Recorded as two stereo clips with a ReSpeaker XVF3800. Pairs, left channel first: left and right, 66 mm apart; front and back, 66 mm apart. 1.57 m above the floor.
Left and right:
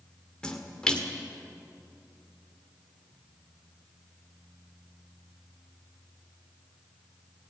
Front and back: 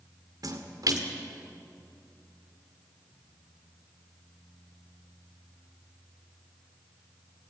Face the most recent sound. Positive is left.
turn(degrees=165)